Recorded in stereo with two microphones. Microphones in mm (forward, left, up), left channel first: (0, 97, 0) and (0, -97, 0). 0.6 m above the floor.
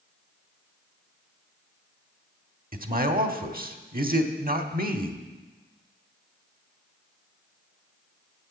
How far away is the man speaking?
About 1.2 m.